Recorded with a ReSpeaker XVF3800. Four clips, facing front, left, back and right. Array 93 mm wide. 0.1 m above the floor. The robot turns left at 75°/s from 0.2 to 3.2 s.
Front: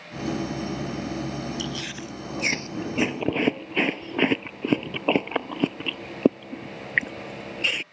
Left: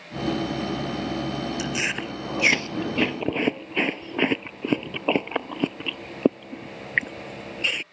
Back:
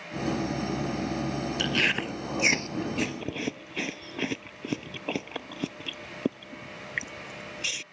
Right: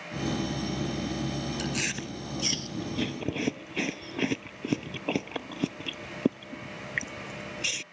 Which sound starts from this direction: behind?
Chewing, at 1.6 s.